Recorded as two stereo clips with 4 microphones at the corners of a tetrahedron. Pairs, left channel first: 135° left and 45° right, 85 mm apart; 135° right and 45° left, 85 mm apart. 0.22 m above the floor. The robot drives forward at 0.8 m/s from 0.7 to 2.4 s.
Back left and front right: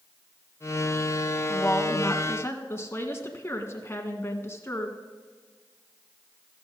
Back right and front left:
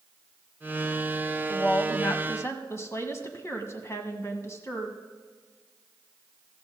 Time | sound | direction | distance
1.5 | a woman speaking | 175° right | 1.1 m